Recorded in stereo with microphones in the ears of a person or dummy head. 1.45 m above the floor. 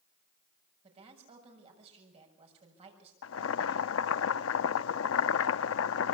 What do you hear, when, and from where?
0.8 s a woman speaking: 35° right (ahead or behind), 6.5 m
3.2 s boiling: 75° left (ahead or behind), 0.8 m